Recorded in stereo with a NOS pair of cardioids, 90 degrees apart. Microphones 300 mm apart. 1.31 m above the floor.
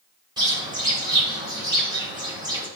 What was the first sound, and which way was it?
A bird, 15° right.